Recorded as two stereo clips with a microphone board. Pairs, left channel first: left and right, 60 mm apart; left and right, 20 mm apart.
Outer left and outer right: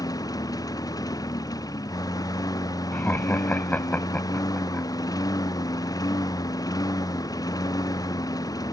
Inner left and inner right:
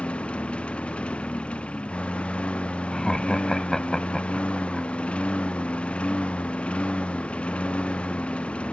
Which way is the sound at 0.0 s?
85° left.